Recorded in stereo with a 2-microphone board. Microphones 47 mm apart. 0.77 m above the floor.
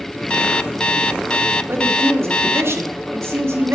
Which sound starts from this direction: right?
A man speaking, at 1.7 s.